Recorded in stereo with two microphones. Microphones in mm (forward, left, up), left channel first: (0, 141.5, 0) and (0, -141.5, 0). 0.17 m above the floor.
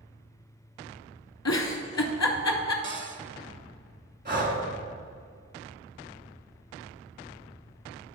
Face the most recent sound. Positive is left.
turn(degrees=-40)  # may be behind; listen again after turning